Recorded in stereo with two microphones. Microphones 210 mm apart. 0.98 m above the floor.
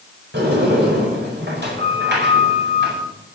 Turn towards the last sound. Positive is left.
turn(degrees=-60)  # may be behind; listen again after turning